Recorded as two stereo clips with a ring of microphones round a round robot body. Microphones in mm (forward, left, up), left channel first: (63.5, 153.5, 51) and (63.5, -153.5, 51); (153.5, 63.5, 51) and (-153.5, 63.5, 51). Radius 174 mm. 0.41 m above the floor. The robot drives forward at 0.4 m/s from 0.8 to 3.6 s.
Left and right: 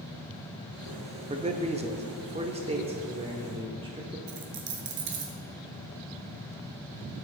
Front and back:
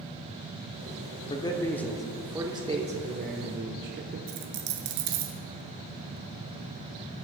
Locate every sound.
1.3 s a man speaking: 50° right, 1.0 m; by 4.2 s 155° right, 1.2 m
4.3 s a dropped coin: 145° right, 1.1 m